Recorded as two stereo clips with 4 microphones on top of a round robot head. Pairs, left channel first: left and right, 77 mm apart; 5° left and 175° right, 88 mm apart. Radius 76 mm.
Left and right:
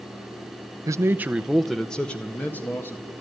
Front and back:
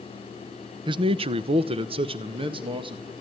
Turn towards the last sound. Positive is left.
turn(degrees=160)